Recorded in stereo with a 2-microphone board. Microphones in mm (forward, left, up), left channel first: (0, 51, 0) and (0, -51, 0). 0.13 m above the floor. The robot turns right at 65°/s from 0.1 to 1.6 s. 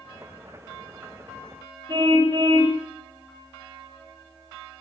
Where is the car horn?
45° right (ahead or behind), 6.5 m.